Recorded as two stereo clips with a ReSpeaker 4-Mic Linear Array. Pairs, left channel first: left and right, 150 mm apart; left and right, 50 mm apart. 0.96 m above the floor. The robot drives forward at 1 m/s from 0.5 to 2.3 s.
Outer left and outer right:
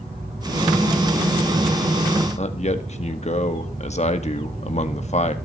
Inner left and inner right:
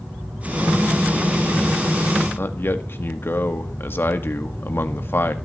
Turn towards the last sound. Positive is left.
turn(degrees=50)  # may be behind; listen again after turning